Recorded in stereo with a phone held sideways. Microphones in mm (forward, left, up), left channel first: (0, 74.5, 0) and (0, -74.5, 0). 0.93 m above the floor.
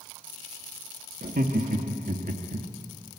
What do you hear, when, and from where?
1.2 s laughter: 75° right (ahead or behind), 1.8 m